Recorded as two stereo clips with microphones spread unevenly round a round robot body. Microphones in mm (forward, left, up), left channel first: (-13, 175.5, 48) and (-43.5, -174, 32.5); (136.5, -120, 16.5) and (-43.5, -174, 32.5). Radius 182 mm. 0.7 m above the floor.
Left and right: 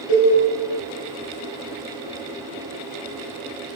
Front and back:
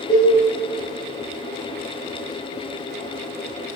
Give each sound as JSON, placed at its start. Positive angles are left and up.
{"t": 0.1, "sound": "a cowbell", "azimuth_deg": 95, "distance_m": 2.5}